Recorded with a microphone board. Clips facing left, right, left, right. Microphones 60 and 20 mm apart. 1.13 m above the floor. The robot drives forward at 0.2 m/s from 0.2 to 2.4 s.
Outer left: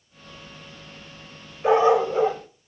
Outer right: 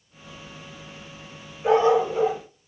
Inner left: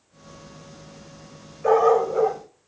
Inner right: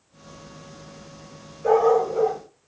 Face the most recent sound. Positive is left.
turn(degrees=25)  # may be behind; listen again after turning